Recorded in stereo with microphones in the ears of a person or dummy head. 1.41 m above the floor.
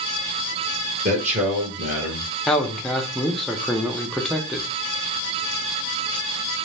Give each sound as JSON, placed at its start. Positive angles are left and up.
{"t": 1.1, "sound": "a man speaking", "side_deg": -40, "distance_m": 1.0}
{"t": 2.5, "sound": "a man speaking", "side_deg": 0, "distance_m": 0.5}